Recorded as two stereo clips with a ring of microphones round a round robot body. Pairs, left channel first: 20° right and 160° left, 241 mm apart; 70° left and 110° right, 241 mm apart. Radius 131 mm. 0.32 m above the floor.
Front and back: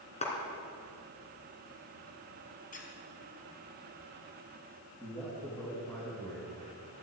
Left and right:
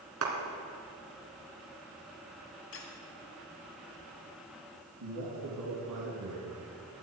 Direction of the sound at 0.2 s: 85° right.